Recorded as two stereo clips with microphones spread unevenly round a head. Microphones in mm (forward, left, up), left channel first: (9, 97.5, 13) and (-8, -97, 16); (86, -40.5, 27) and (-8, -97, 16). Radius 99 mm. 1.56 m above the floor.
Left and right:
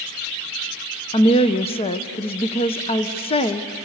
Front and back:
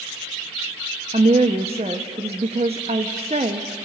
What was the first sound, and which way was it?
A woman speaking, 150° left.